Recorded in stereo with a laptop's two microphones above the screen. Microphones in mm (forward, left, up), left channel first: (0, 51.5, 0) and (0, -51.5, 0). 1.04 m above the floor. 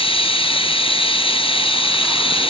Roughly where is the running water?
Left.